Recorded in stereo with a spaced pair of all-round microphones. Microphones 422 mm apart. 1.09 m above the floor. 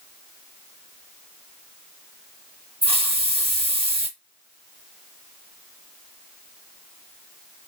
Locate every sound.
2.8 s a hiss: 15° right (ahead or behind), 1.3 m